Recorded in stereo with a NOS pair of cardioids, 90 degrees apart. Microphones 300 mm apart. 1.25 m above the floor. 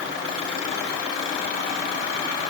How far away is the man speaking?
No man speaking in this recording.